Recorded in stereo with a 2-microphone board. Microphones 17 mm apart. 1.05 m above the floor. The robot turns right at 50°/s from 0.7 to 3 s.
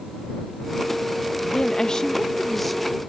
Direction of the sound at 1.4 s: 115° left.